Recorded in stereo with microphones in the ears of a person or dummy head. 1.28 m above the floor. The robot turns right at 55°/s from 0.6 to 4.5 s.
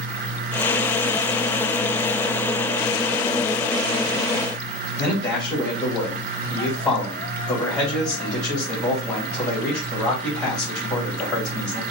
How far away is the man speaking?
About 2 m.